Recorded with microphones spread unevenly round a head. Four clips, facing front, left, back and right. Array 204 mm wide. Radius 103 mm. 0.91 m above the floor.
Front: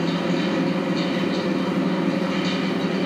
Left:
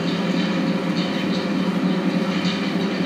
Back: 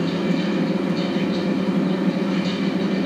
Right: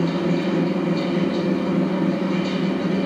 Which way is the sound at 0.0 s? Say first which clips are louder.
Right 1 dB, back 1 dB; 30° right.